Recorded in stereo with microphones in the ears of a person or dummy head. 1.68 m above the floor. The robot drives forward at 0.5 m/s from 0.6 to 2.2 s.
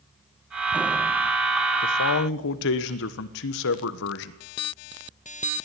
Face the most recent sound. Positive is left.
turn(degrees=65)  # may be behind; listen again after turning